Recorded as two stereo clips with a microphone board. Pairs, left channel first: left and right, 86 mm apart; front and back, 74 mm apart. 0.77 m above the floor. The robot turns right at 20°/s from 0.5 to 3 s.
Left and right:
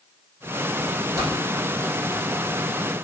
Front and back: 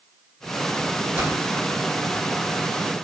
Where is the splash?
130° right, 1.5 m; by 1.7 s 120° right, 1.5 m.